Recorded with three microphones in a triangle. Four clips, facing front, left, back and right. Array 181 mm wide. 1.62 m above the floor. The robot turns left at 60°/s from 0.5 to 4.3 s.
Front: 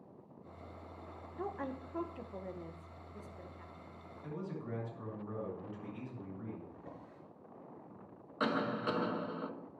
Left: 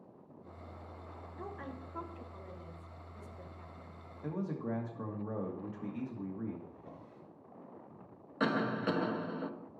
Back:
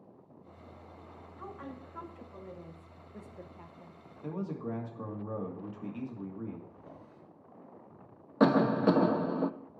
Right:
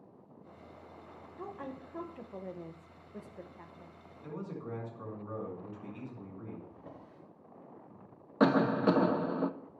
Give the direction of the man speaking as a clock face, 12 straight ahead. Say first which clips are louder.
Left 4 dB, back 6 dB; 7 o'clock.